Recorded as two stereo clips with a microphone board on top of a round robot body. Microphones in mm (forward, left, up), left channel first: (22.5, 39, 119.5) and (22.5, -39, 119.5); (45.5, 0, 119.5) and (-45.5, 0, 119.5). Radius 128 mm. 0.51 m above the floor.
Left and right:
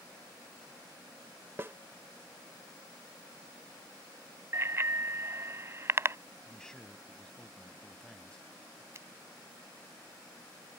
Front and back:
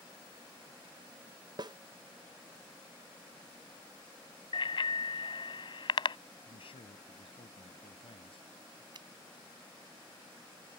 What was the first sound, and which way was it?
A snare drum, 150° right.